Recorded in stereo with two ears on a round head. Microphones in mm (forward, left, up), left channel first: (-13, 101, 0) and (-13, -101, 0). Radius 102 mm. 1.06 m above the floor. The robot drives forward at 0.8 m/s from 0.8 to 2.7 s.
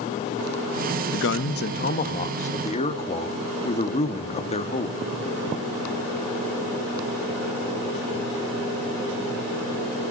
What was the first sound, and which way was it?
A man speaking, 60° left (ahead or behind).